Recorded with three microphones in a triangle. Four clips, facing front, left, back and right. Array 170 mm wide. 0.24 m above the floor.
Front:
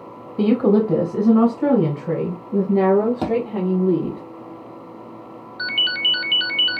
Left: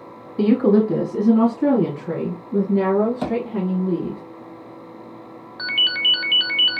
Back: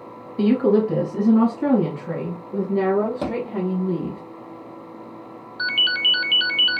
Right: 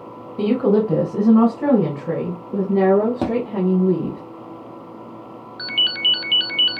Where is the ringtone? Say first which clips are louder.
Left 2 dB, back 1 dB; 95° left, 0.7 m.